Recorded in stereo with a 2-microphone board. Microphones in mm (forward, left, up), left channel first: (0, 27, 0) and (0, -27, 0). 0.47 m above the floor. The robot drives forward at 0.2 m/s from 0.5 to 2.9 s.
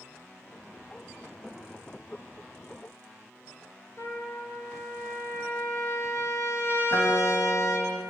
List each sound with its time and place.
1.4 s knocking: 5° left (ahead or behind), 8 m
4.0 s a trumpet: 50° left (ahead or behind), 5.5 m
6.9 s a guitar: 65° left (ahead or behind), 6.5 m